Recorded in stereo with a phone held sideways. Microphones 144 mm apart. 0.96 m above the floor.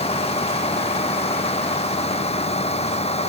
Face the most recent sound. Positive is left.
turn(degrees=50)  # may be behind; listen again after turning